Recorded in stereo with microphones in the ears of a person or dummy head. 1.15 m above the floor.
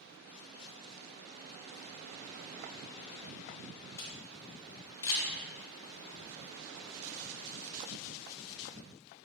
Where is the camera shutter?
20° left (ahead or behind), 2.5 m.